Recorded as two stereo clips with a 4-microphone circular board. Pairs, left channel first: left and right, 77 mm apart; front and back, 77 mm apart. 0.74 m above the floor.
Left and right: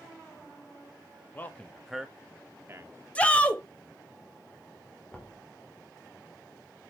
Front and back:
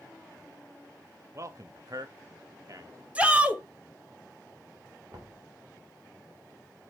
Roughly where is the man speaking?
Behind left.